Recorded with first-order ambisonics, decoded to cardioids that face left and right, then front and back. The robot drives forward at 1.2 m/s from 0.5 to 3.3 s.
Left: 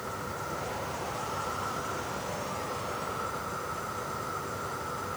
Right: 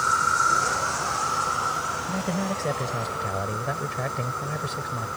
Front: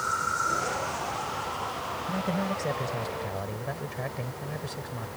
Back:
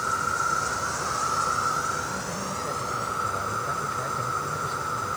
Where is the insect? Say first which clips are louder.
Right 16 dB, back 2 dB; 95° right; by 5.2 s 165° right.